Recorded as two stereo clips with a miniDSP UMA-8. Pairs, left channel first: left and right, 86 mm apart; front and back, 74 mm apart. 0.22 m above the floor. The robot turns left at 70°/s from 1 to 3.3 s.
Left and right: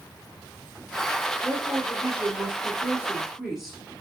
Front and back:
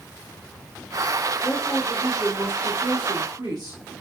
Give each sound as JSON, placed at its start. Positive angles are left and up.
{"t": 1.4, "sound": "a woman speaking", "azimuth_deg": -50, "distance_m": 4.0}